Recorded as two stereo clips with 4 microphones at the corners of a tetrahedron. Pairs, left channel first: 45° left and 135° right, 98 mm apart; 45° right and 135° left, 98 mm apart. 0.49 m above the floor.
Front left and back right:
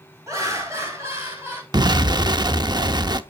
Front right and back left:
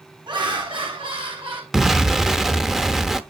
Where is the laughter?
165° left, 4.5 m; by 1.6 s 160° left, 4.5 m.